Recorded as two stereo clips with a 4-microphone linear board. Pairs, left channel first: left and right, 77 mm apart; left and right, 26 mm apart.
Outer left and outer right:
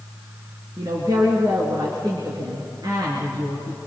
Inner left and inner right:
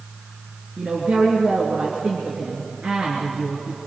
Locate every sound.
0.8 s a woman speaking: 55° right (ahead or behind), 3.5 m